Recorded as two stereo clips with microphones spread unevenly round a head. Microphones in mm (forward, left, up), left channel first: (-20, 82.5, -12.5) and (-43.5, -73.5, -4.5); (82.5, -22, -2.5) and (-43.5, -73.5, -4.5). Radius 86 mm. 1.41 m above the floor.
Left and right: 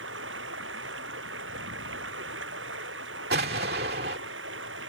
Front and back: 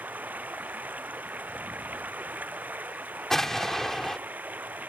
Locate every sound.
0.0 s running water: 80° right
3.3 s an explosion: 65° right